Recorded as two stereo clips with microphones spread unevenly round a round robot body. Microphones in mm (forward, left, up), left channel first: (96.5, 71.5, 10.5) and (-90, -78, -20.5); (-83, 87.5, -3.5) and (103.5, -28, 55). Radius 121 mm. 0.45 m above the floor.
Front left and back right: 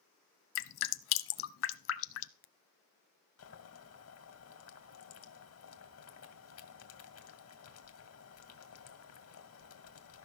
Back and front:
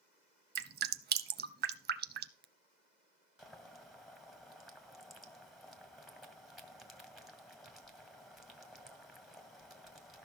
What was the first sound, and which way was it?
Dripping, 5° left.